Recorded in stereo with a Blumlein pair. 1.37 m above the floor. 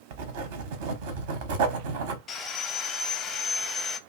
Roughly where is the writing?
Ahead right.